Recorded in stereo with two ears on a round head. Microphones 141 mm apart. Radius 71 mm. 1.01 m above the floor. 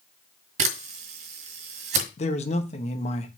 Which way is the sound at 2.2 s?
45° left (ahead or behind).